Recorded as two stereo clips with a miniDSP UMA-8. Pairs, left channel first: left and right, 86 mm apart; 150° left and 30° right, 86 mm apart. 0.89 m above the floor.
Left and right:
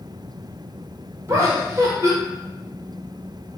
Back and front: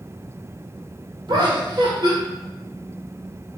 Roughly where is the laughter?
Ahead right.